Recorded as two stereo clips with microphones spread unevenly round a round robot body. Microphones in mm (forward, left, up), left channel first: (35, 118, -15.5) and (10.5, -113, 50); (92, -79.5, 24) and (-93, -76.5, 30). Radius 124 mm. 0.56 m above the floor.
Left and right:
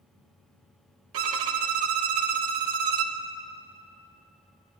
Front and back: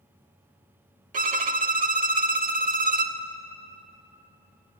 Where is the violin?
135° right, 0.9 m.